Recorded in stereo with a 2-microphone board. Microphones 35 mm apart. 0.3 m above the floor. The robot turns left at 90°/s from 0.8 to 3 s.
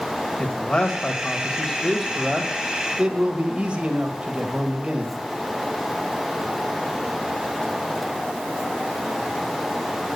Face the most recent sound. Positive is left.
turn(degrees=-30)  # may be behind; listen again after turning